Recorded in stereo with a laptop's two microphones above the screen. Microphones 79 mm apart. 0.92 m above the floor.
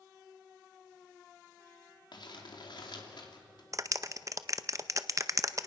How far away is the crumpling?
About 2.5 m.